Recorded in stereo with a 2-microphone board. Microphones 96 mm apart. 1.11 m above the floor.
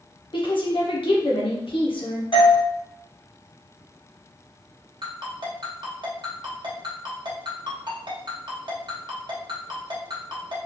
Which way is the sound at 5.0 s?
55° right (ahead or behind).